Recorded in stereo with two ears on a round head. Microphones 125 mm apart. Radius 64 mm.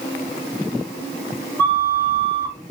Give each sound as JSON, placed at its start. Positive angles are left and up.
{"t": 1.6, "sound": "a flute", "side_deg": 15, "distance_m": 1.5}